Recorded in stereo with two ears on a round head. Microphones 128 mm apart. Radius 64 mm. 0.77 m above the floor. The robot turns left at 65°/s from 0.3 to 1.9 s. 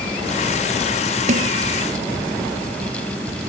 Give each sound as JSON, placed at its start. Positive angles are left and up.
{"t": 1.3, "sound": "a snare drum", "side_deg": -55}